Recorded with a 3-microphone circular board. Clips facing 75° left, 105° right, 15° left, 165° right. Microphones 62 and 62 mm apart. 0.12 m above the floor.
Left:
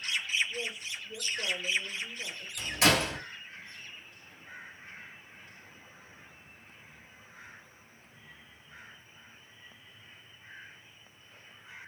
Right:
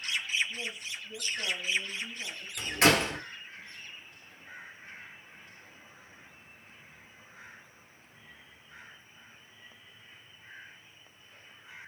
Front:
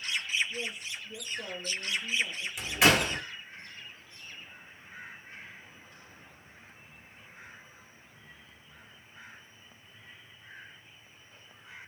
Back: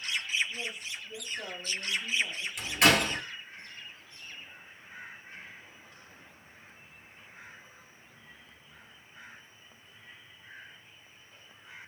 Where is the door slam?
70° right, 1.4 m.